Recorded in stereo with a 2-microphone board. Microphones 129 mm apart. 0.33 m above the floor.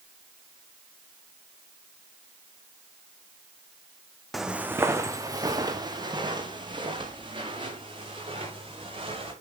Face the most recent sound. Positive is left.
turn(degrees=-45)  # may be behind; listen again after turning